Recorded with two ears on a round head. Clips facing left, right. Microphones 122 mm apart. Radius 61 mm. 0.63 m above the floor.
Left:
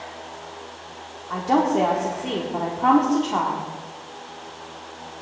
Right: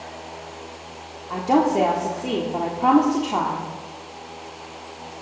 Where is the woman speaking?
10° right (ahead or behind), 1.3 m.